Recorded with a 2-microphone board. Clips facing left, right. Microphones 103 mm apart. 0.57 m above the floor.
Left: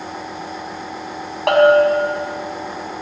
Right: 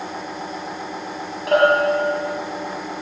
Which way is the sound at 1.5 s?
80° left.